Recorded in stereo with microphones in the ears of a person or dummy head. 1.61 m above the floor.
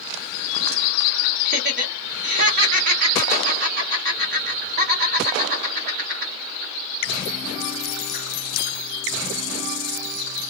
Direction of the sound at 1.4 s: 50° right (ahead or behind).